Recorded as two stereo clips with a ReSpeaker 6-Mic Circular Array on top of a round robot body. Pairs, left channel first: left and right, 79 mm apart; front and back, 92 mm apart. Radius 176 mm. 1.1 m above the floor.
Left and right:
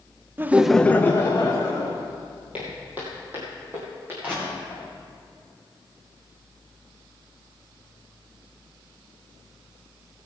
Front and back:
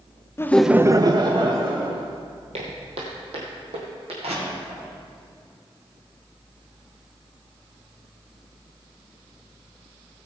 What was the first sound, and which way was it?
Laughter, 45° right.